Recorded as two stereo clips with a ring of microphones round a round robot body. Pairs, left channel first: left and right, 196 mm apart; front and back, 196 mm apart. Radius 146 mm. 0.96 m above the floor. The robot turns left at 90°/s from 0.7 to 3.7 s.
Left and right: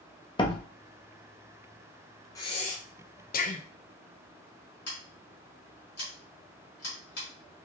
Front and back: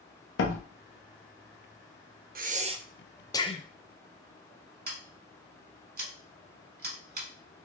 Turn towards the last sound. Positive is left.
turn(degrees=145)